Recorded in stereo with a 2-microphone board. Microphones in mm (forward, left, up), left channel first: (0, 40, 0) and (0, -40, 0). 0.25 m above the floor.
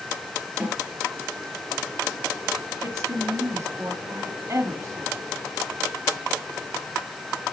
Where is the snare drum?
15° right (ahead or behind), 4.5 m.